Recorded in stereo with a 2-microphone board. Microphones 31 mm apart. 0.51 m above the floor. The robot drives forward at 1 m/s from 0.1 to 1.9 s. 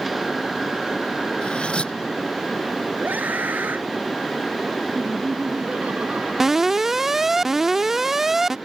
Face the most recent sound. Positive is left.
turn(degrees=-10)  # may be behind; listen again after turning